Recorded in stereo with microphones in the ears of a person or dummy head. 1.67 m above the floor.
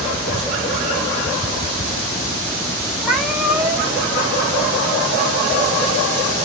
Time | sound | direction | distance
3.0 | a cat meowing | 5° right (ahead or behind) | 1.0 m